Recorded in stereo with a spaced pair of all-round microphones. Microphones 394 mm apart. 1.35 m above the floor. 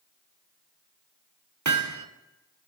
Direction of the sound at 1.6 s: 45° right (ahead or behind).